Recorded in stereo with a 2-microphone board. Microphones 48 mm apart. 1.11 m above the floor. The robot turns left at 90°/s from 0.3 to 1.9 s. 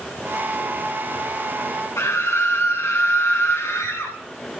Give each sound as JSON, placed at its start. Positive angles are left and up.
{"t": 2.0, "sound": "a scream", "side_deg": 85, "distance_m": 4.5}